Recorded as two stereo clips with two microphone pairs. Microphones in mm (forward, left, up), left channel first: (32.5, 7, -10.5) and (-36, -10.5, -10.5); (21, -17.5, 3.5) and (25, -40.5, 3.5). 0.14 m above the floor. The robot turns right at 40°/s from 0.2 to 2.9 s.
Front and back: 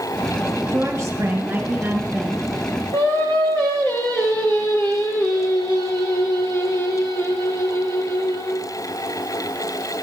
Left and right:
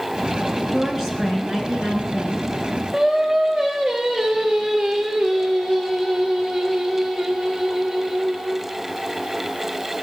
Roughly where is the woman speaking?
Behind right.